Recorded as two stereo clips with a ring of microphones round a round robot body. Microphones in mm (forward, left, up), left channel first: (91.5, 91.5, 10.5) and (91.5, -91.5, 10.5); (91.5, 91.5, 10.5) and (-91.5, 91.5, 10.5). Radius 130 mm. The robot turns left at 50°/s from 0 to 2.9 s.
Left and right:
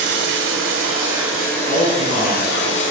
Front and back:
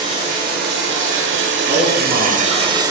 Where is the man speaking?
140° left, 4.5 m; by 2.7 s 90° left, 4.5 m.